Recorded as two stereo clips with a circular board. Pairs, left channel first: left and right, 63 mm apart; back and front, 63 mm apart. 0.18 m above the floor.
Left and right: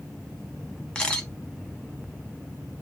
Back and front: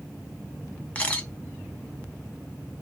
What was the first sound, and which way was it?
A camera shutter, 145° left.